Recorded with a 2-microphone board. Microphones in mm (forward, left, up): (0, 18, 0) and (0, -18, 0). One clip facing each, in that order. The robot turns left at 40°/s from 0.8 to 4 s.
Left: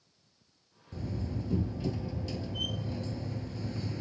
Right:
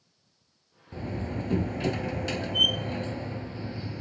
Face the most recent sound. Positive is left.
turn(degrees=-165)